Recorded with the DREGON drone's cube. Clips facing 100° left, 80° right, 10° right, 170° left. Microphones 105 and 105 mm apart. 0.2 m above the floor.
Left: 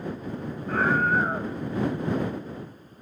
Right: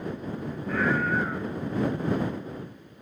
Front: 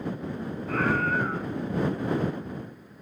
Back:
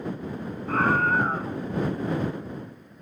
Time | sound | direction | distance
0.7 | a scream | 135° left | ?